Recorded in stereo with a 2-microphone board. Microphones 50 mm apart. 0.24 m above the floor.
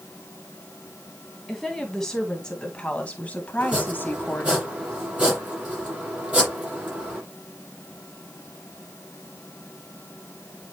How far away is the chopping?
About 7.5 m.